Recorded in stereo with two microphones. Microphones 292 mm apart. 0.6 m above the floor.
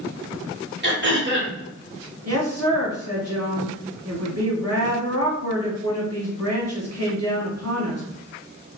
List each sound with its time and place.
0.8 s throat clearing: 40° right (ahead or behind), 1.4 m
2.2 s a woman speaking: 55° right (ahead or behind), 1.8 m